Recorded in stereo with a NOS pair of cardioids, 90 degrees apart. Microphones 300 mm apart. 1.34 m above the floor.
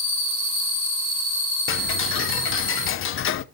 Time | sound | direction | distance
1.7 | ticking | 45° left | 0.7 m